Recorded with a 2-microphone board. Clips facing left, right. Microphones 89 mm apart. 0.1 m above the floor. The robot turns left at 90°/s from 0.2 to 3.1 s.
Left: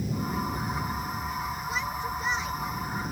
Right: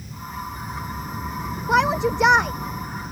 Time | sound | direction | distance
0.0 | an aircraft | 65° left | ?
1.7 | a shout | 55° right | ?